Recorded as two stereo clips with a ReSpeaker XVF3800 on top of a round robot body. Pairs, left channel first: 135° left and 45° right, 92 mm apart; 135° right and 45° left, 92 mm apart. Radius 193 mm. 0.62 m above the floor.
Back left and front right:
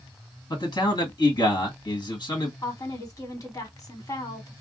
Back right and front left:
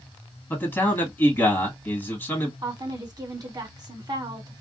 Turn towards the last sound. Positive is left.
turn(degrees=85)